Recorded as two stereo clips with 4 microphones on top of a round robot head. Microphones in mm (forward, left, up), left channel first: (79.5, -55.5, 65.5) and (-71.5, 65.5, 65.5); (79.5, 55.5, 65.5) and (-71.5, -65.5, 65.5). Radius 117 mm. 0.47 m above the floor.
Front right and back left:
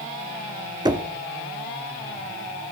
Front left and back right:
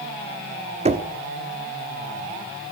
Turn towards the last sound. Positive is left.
turn(degrees=-165)